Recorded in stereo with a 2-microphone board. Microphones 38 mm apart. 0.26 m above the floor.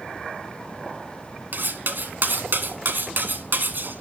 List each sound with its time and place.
1.5 s cutlery clinking: 60° right (ahead or behind), 1.2 m